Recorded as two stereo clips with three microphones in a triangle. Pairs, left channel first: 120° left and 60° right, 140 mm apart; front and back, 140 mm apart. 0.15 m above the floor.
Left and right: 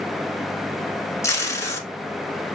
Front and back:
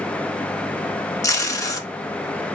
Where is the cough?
I don't hear a cough.